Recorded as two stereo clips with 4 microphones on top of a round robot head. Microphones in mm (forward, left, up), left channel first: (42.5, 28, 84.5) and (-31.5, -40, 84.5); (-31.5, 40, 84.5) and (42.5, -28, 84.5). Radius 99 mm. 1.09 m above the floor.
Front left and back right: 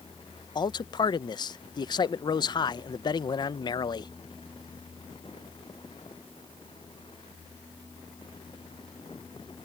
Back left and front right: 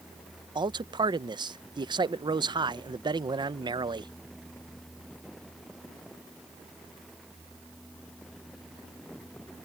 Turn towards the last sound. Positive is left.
turn(degrees=0)